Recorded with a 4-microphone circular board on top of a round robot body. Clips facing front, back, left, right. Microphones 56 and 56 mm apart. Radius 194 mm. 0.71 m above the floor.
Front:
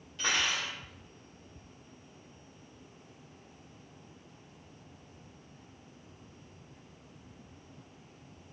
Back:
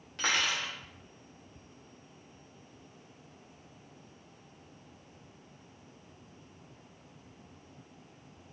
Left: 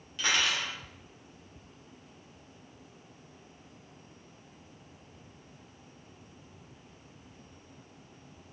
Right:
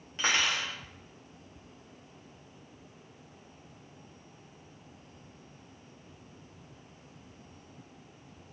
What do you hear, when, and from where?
0.2 s cutlery clinking: 145° right, 0.9 m